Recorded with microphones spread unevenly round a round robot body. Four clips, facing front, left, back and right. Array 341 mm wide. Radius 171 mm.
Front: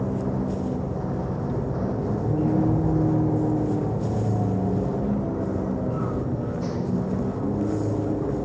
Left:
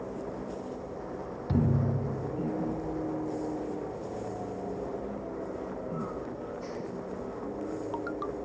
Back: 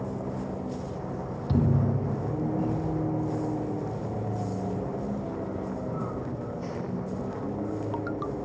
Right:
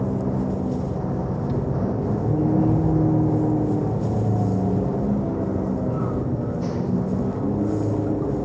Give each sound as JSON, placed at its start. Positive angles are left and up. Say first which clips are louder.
{"t": 0.0, "sound": "a vehicle", "louder": "right 12 dB, front 7 dB", "azimuth_deg": -65}
{"t": 1.5, "sound": "a thud", "louder": "even, back 5 dB", "azimuth_deg": 155}